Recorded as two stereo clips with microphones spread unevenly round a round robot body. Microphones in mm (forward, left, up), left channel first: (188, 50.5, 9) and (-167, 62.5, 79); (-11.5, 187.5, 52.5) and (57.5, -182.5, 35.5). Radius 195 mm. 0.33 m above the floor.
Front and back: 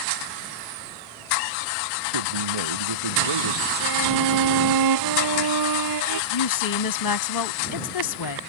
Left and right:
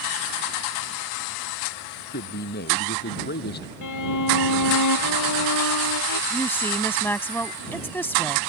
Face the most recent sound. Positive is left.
turn(degrees=15)